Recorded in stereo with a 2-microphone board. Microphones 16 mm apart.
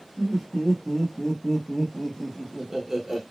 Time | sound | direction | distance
0.2 | laughter | 35° left (ahead or behind) | 1.1 m